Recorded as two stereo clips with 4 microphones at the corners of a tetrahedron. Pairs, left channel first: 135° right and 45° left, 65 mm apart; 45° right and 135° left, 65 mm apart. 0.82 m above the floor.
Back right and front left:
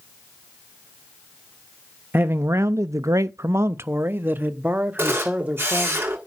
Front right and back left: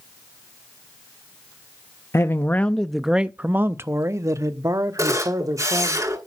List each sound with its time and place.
2.1 s a man speaking: 5° right, 0.6 m; by 6.0 s 115° left, 1.7 m
5.0 s a camera shutter: 100° left, 6.5 m